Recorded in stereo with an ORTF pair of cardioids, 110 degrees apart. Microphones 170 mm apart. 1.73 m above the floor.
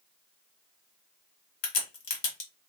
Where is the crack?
55° left, 1.6 m.